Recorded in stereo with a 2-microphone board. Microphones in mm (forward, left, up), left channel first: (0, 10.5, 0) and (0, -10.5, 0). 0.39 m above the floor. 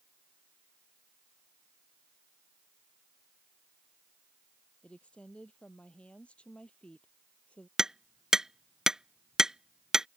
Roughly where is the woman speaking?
Left.